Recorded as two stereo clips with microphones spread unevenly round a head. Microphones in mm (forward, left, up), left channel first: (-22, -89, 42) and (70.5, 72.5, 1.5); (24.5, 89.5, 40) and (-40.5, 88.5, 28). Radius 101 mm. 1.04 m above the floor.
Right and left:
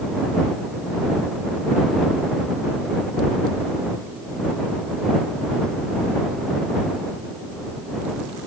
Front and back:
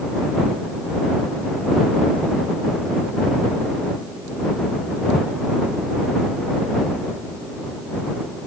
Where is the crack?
I don't hear a crack.